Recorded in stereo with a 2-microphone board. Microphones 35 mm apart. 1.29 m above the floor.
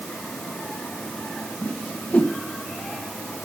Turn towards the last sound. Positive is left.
turn(degrees=45)  # may be behind; listen again after turning